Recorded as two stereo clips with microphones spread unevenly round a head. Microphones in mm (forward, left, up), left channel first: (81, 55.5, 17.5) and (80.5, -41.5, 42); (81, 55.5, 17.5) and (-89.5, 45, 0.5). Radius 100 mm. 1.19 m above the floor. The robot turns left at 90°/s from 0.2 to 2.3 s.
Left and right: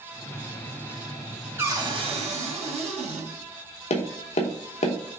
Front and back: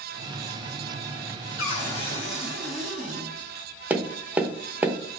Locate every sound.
1.6 s a cupboard door: 25° right, 2 m; by 3.3 s 85° right, 2 m
3.9 s tapping: 100° left, 0.8 m